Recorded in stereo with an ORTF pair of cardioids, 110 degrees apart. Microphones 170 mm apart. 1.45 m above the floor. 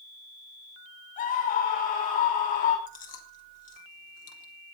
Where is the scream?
55° left, 7 m.